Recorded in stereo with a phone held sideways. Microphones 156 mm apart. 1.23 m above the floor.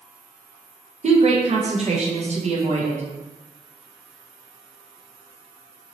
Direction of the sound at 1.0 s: 45° right (ahead or behind).